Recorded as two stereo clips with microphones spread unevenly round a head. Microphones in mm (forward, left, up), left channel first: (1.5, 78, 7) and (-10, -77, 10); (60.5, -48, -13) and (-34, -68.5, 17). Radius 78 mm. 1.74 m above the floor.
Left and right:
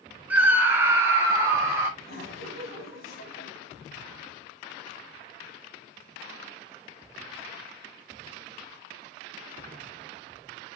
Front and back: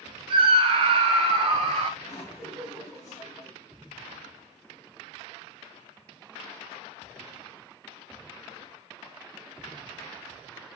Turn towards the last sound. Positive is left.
turn(degrees=80)